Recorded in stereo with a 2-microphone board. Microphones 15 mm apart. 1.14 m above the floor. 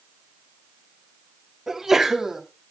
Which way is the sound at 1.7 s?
30° right (ahead or behind).